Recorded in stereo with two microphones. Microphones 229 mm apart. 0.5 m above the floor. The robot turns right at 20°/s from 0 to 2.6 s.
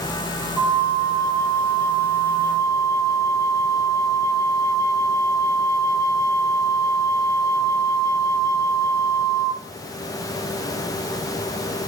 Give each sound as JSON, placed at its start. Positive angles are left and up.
{"t": 0.6, "sound": "a flute", "side_deg": -15, "distance_m": 0.8}